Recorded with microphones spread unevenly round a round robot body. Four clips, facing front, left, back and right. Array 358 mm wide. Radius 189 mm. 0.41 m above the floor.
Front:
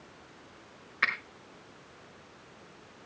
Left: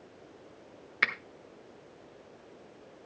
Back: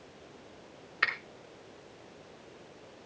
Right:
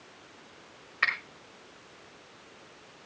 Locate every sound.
1.0 s a finger snap: 105° left, 1.3 m